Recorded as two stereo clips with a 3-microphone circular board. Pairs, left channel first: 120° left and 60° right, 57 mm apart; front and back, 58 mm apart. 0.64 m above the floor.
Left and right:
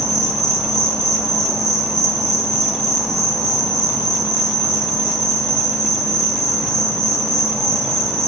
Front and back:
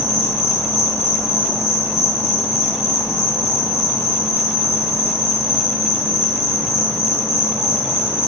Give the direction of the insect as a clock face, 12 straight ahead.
11 o'clock.